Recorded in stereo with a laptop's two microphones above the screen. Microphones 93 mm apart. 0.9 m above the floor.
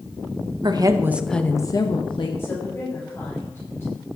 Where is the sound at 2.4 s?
25° left (ahead or behind), 3.5 m.